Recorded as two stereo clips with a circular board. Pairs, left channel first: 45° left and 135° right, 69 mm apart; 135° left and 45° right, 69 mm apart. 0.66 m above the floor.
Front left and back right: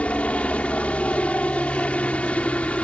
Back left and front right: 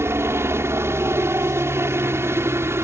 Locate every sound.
0.0 s a helicopter: 15° right